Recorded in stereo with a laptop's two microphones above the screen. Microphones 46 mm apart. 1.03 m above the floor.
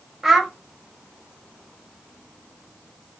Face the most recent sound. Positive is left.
turn(degrees=-5)  # may be behind; listen again after turning